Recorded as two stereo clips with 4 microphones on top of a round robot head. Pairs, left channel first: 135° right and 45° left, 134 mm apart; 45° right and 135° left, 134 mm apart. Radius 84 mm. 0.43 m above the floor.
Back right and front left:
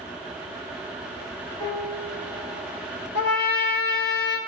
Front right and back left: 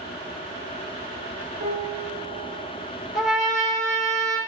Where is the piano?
155° left, 2.0 m.